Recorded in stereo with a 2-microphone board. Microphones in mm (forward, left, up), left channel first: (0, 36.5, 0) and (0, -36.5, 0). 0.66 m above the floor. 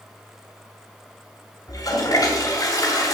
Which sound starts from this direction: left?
A toilet flushing, at 1.7 s.